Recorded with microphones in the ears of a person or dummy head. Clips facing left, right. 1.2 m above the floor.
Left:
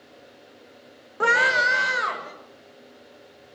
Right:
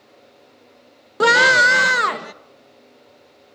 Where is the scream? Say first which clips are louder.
Right 7 dB; 50° right (ahead or behind), 0.8 m; by 2.3 s 70° right (ahead or behind), 1.8 m.